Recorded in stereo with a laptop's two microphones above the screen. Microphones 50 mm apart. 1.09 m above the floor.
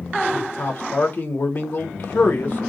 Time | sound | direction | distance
0.3 | a man speaking | 35° left (ahead or behind) | 1.2 m